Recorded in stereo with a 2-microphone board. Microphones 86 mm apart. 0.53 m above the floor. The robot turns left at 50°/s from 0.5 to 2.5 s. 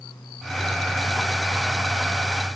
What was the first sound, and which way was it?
Only background noise.